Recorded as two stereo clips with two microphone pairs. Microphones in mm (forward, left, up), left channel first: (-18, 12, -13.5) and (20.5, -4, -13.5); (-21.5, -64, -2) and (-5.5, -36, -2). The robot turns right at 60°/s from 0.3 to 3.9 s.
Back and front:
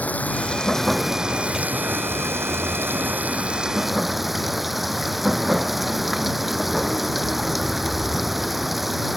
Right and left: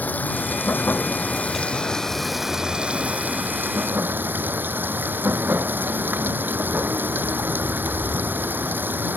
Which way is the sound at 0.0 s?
150° right.